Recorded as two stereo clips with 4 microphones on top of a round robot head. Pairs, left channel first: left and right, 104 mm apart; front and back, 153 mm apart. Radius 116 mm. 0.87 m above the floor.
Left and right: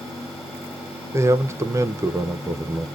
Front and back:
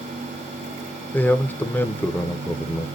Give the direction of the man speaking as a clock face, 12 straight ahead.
2 o'clock.